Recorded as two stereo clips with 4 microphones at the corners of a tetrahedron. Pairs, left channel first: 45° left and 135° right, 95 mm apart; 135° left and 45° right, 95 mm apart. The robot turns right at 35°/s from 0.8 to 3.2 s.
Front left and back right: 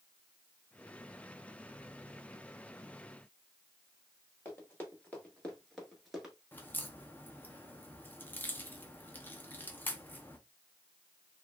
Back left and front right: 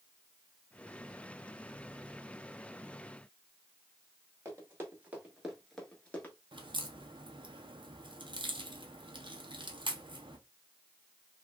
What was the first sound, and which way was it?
Running footsteps, 5° right.